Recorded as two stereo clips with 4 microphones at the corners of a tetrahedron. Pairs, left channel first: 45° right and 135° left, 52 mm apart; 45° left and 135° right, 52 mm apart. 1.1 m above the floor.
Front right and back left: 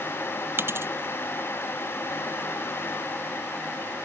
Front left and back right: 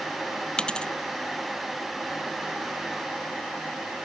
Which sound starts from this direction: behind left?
A dropped coin, at 0.6 s.